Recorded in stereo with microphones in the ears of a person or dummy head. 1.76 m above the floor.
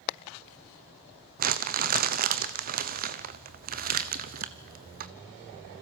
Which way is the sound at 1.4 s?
45° right (ahead or behind).